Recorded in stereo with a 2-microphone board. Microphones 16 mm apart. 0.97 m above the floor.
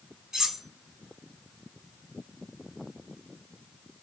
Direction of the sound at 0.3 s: 45° right (ahead or behind).